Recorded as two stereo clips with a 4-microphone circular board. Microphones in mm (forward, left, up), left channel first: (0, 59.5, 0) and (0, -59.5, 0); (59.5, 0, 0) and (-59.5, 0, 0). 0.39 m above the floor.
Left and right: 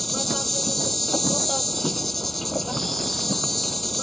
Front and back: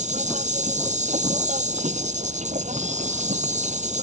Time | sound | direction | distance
0.0 | an insect | straight behind | ?